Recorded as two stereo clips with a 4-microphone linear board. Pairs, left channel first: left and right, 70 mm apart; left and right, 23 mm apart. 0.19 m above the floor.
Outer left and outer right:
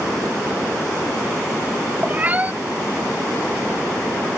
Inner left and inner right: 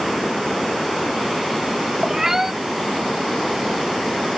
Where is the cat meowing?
20° right (ahead or behind).